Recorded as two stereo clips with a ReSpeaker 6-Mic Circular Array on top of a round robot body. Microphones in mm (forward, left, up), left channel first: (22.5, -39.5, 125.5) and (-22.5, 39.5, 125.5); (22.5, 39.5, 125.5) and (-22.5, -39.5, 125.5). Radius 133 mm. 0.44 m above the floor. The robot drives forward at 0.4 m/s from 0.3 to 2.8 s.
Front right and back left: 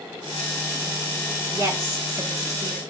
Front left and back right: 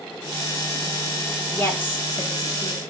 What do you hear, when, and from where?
1.5 s a woman speaking: 95° left, 1.4 m; by 2.8 s 135° left, 1.5 m